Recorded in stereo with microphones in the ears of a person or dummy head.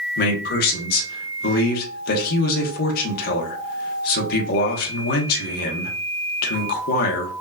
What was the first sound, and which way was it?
A man speaking, 65° left (ahead or behind).